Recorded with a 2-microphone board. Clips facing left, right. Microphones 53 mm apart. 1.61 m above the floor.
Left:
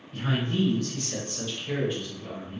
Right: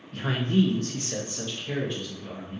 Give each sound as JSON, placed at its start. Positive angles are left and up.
{"t": 0.1, "sound": "a man speaking", "side_deg": -60, "distance_m": 0.9}